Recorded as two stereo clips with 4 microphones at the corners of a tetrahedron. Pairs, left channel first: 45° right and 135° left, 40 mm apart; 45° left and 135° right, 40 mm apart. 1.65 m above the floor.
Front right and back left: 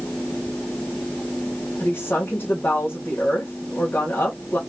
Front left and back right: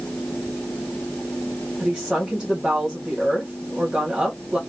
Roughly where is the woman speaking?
Right.